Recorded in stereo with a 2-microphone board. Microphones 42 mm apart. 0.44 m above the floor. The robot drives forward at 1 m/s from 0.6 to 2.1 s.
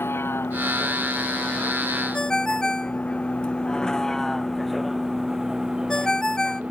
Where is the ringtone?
15° left (ahead or behind).